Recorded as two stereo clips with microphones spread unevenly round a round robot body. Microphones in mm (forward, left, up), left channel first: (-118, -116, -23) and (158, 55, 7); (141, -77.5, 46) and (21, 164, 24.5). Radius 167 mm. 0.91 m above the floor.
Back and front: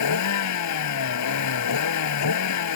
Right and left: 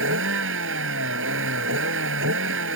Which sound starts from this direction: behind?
A vehicle, at 0.0 s.